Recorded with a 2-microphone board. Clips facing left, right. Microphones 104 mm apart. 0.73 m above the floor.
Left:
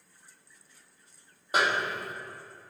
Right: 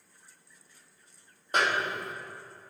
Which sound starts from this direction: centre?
A snare drum, at 1.5 s.